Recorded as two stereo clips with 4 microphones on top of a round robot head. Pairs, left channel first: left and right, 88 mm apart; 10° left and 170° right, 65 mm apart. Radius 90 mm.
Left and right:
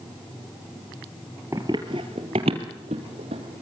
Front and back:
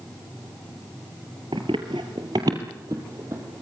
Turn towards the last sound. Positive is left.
turn(degrees=-110)